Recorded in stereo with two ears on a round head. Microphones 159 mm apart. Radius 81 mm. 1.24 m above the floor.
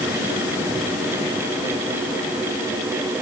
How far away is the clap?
No clap in this recording.